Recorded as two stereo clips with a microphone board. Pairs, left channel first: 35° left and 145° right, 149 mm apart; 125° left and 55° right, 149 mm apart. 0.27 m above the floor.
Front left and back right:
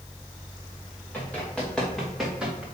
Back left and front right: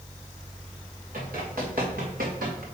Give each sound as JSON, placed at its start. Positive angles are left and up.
{"t": 1.1, "sound": "running footsteps", "azimuth_deg": -45, "distance_m": 4.0}